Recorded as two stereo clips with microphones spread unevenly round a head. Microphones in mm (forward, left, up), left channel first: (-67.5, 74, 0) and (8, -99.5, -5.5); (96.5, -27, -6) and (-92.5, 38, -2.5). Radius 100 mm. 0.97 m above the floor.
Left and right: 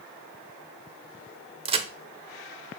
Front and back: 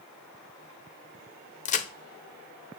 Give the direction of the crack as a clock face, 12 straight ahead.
1 o'clock.